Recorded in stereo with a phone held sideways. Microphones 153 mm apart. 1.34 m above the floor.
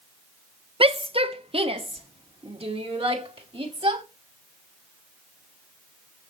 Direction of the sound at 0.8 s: 35° right (ahead or behind).